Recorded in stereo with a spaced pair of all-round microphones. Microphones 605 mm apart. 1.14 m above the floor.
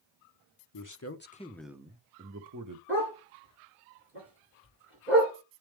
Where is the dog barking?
20° right (ahead or behind), 6 m.